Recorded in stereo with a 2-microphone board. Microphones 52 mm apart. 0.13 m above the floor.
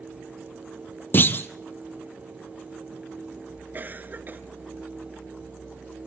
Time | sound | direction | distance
1.1 | a clunk | 40° left (ahead or behind) | 1.0 m
3.7 | a cough | 40° right (ahead or behind) | 1.7 m